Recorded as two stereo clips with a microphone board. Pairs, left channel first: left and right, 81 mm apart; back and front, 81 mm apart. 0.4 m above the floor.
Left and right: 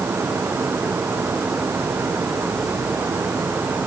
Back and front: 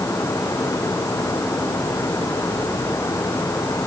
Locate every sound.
Only background noise.